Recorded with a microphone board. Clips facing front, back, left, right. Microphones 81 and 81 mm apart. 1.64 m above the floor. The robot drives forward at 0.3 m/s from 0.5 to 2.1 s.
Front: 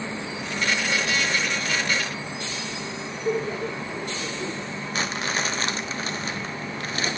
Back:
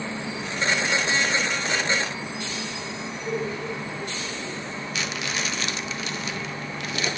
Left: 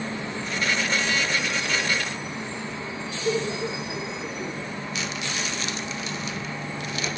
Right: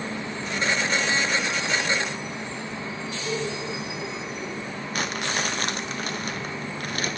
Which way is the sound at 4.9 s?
50° right.